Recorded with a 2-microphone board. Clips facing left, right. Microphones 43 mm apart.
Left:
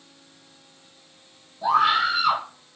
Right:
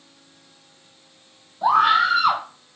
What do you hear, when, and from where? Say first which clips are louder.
1.6 s a scream: right 3 dB; 50° right (ahead or behind), 3 m